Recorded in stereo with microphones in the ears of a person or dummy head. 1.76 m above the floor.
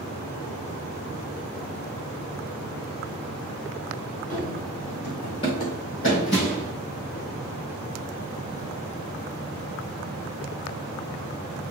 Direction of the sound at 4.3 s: 10° left (ahead or behind).